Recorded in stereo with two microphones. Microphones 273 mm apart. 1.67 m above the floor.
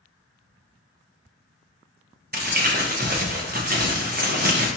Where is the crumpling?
35° right (ahead or behind), 0.6 m.